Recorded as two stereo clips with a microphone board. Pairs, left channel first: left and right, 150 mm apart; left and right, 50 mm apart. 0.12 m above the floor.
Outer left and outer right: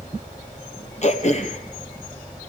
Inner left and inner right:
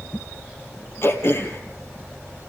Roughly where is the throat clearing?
Left.